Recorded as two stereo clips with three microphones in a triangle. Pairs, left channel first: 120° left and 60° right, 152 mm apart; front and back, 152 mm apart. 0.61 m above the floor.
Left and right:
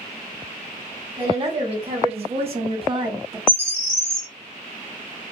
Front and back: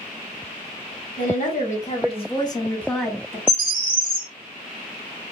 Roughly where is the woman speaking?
Ahead.